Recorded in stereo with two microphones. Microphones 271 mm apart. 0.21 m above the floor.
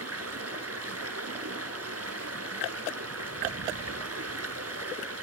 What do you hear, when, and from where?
0.0 s running water: 65° right (ahead or behind), 1.6 m